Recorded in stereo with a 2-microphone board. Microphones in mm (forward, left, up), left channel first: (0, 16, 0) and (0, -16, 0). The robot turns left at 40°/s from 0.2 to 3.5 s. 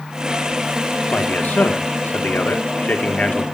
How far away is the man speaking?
About 1.9 m.